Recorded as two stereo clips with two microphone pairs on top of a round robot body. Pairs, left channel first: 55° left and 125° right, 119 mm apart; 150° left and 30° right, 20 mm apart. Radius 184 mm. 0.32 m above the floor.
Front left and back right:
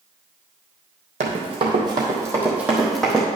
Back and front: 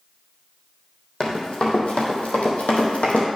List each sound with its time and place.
1.2 s running footsteps: 160° right, 1.2 m; by 3.2 s 140° left, 1.2 m